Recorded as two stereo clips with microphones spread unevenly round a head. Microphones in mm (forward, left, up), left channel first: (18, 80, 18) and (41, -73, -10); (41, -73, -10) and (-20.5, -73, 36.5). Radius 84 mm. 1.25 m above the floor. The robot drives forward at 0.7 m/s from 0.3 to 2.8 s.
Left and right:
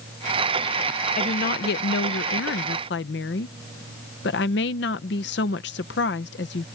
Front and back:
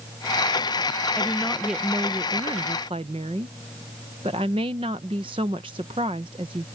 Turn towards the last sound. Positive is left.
turn(degrees=125)